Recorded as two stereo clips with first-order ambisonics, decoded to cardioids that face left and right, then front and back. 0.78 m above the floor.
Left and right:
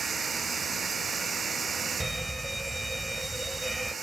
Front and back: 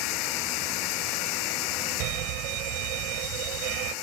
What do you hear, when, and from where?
0.0 s running water: 20° right
2.0 s a fire alarm: 175° right